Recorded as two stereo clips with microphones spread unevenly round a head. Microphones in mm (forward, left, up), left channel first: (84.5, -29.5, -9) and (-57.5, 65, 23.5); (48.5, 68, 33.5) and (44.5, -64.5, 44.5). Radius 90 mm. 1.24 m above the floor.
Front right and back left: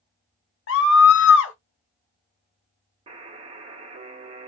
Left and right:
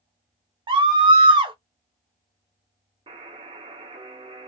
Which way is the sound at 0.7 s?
35° right.